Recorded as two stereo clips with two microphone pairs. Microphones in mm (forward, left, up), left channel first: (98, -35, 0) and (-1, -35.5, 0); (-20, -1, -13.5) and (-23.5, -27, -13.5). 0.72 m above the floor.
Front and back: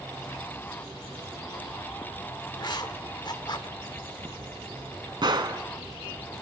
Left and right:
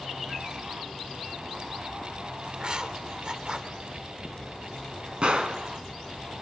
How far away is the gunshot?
About 1.7 m.